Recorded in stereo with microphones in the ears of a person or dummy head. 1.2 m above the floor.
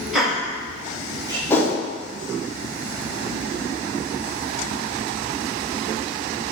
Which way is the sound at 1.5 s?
10° left (ahead or behind).